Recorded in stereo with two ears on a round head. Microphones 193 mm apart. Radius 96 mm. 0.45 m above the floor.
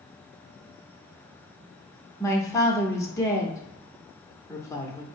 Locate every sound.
2.2 s a man speaking: 15° left (ahead or behind), 0.9 m